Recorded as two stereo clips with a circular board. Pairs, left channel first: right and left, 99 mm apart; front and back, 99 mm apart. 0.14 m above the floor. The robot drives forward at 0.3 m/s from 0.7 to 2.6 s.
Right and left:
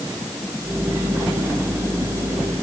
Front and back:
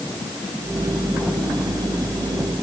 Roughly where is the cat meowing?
I don't hear a cat meowing.